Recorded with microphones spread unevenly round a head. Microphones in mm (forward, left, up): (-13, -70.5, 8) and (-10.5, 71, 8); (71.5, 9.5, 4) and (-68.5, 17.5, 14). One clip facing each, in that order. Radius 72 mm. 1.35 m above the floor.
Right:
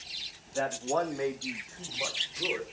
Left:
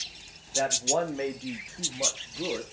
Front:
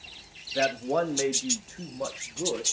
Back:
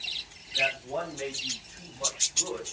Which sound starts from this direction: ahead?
A man speaking, at 0.6 s.